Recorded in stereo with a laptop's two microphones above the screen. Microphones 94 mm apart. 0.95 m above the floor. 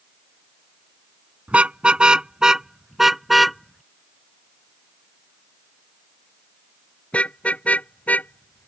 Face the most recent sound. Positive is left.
turn(degrees=15)  # may be behind; listen again after turning